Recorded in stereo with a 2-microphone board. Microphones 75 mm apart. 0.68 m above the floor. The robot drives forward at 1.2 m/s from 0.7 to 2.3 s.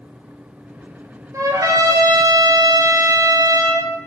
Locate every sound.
1.3 s a trumpet: 45° right (ahead or behind), 2.5 m; by 3.9 s 70° right (ahead or behind), 2 m